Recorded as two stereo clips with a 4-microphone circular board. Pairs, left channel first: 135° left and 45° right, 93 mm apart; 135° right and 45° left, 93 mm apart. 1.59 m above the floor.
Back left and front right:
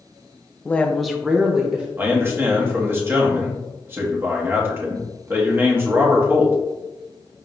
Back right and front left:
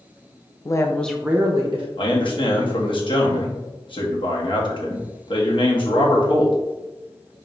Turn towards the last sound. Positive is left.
turn(degrees=-110)